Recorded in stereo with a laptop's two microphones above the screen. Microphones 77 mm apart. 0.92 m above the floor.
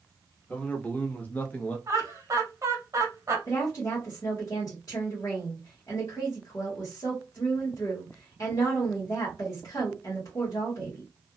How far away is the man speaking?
About 1.0 m.